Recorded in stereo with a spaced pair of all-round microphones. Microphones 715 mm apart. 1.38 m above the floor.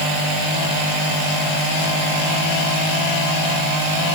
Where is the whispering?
I don't hear whispering.